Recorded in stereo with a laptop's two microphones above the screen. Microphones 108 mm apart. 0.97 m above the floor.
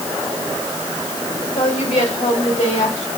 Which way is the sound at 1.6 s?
75° left (ahead or behind).